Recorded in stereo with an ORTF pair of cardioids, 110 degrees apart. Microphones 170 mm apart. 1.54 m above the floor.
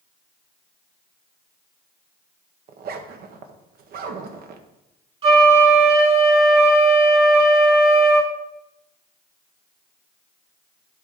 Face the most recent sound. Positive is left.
turn(degrees=-35)